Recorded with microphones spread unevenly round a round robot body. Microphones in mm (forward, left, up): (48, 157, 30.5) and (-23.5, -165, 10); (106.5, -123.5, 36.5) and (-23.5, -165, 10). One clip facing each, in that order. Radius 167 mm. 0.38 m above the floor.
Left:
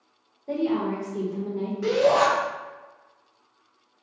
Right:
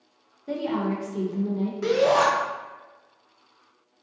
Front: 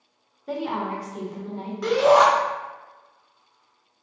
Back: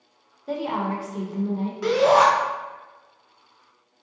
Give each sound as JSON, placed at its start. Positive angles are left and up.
{"t": 0.5, "sound": "a woman speaking", "azimuth_deg": -85, "distance_m": 1.0}
{"t": 1.8, "sound": "a shout", "azimuth_deg": -115, "distance_m": 1.2}